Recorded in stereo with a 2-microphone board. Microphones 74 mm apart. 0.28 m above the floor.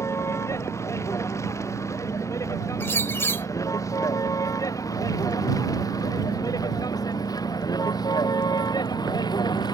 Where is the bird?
30° left (ahead or behind).